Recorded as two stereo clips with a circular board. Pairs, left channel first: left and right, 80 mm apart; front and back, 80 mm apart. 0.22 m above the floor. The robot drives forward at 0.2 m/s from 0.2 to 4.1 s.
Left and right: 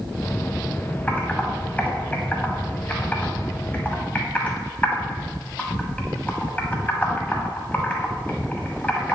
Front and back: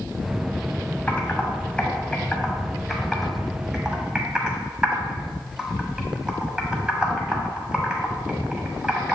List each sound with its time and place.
1.1 s typing on a keyboard: 50° left, 1.2 m; by 9.2 s 120° left, 1.1 m